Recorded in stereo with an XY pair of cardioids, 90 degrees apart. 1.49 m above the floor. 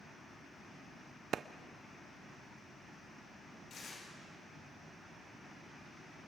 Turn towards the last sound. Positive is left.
turn(degrees=65)